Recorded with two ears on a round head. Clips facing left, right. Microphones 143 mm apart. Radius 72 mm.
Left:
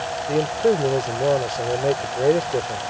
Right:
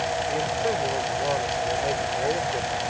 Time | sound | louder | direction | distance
0.3 | a man speaking | left 11 dB | 45° left (ahead or behind) | ?